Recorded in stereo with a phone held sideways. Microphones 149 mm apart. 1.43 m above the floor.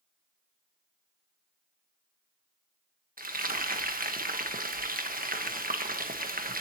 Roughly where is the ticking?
I don't hear ticking.